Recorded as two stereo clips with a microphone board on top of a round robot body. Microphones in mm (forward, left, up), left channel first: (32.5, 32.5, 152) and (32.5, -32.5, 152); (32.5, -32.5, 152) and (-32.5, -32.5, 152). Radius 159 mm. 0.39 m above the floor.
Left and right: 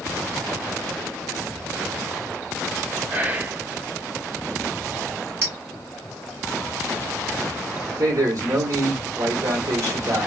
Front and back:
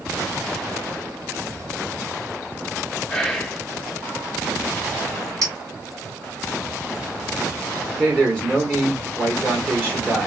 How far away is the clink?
About 2.5 m.